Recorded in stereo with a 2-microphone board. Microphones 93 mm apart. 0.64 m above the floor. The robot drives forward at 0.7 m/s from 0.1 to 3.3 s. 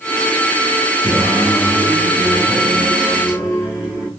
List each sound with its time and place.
1.0 s singing: 15° right (ahead or behind), 7 m; by 4.1 s 10° right (ahead or behind), 8.5 m